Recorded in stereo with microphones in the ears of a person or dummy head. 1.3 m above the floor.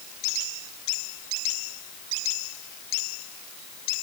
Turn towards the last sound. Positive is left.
No sound to turn to.